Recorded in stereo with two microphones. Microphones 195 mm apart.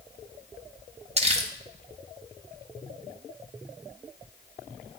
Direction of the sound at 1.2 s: 35° right (ahead or behind).